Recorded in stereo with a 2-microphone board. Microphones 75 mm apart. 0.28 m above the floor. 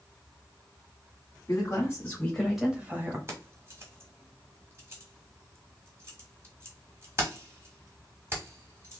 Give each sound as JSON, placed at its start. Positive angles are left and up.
{"t": 1.5, "sound": "a woman speaking", "side_deg": 45, "distance_m": 1.7}
{"t": 3.3, "sound": "keys jangling", "side_deg": -35, "distance_m": 1.3}